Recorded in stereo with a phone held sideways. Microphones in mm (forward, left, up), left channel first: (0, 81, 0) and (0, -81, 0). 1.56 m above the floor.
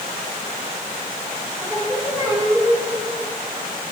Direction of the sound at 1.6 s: 20° right (ahead or behind).